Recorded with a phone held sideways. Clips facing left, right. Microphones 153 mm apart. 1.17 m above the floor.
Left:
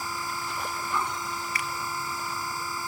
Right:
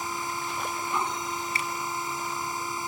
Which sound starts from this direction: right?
A finger snap, at 1.6 s.